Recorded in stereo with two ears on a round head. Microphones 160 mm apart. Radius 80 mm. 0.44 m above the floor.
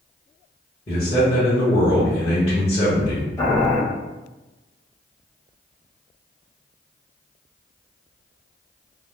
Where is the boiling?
20° left (ahead or behind), 1.1 m.